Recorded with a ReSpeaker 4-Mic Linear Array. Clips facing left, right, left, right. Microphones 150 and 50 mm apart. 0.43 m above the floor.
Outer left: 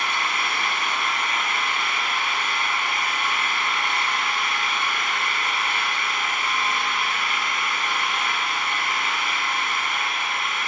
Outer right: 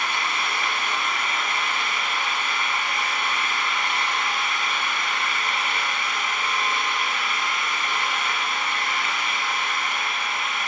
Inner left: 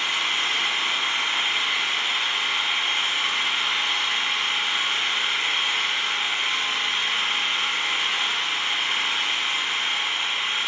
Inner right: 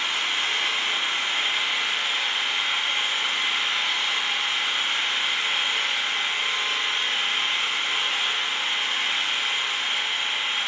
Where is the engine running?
65° left (ahead or behind), 1.4 m.